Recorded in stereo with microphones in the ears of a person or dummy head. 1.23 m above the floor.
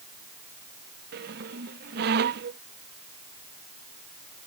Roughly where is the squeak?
Right.